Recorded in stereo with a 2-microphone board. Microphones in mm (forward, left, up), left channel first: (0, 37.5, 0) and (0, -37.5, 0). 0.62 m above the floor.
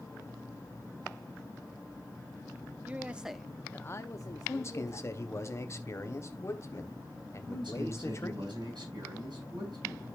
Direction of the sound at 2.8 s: 25° right (ahead or behind).